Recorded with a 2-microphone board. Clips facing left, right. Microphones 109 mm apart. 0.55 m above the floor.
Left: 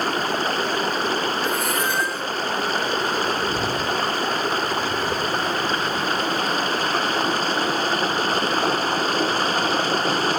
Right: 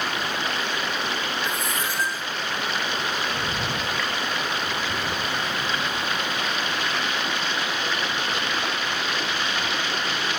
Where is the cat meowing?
75° left (ahead or behind).